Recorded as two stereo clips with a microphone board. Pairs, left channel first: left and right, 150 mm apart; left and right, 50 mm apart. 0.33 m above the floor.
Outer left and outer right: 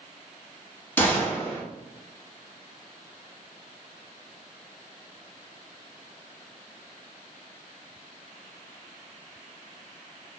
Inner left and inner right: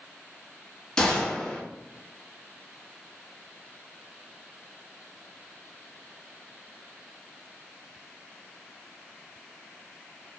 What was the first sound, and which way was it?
A gunshot, 15° left (ahead or behind).